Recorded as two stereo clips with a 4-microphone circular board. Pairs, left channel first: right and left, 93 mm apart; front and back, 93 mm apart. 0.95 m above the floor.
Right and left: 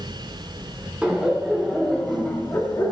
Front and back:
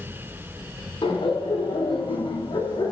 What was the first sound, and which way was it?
Laughter, 10° left.